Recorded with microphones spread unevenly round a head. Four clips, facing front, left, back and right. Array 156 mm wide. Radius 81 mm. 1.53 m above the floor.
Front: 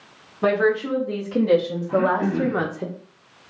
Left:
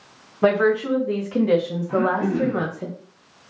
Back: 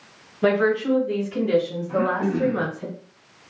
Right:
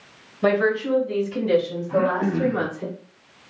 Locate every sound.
0.4 s a woman speaking: 65° left, 2 m; by 2.9 s 10° left, 1.0 m
1.9 s throat clearing: 35° left, 1.6 m